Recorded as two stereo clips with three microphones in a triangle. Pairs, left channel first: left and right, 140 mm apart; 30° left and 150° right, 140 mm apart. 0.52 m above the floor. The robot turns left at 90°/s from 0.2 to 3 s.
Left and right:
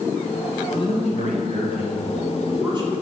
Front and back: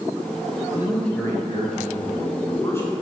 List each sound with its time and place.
0.7 s a man speaking: 150° left, 2.5 m; by 2.9 s 55° right, 2.5 m